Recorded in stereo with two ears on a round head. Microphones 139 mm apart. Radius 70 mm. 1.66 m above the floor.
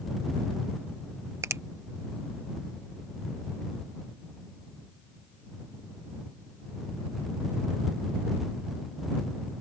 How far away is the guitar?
I don't hear a guitar.